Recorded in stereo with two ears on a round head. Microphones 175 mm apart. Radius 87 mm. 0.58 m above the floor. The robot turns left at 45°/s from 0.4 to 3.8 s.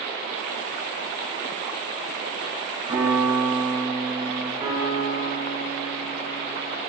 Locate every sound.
2.9 s a piano: 160° right, 2.5 m; by 4.5 s 155° left, 2.5 m
4.6 s a piano: 30° right (ahead or behind), 2.5 m